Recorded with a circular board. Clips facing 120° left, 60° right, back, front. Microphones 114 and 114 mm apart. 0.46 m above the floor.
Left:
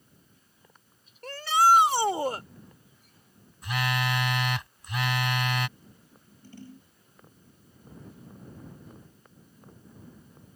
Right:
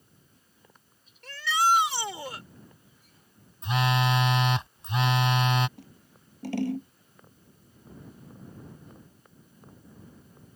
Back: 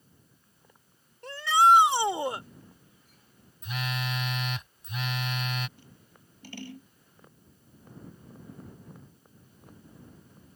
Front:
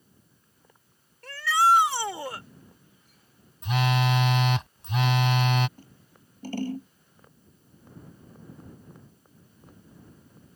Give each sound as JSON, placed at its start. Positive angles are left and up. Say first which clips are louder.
{"t": 1.2, "sound": "a shout", "louder": "left 4 dB, back 1 dB", "azimuth_deg": 125}
{"t": 3.6, "sound": "a phone buzzing", "louder": "right 4 dB, front 9 dB", "azimuth_deg": 0}
{"t": 5.8, "sound": "scissors", "louder": "right 4 dB, front 3 dB", "azimuth_deg": -50}